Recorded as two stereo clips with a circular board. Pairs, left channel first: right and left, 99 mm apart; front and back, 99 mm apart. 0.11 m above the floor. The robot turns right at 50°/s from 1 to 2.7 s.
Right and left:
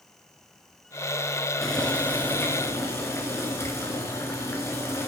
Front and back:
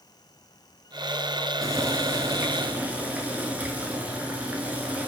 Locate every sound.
1.6 s boiling: 175° right, 0.6 m; by 5.1 s 120° right, 0.6 m